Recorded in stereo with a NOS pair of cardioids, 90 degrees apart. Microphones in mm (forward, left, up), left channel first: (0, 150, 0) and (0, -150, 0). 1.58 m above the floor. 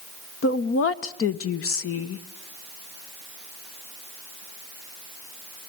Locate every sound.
0.4 s a woman speaking: 45° left, 1.3 m